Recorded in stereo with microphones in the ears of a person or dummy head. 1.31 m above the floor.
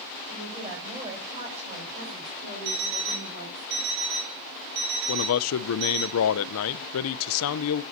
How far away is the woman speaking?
About 5.5 m.